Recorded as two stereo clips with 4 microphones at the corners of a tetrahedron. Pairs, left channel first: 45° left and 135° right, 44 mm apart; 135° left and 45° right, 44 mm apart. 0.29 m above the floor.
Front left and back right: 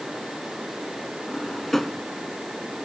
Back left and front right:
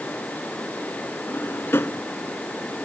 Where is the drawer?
130° left.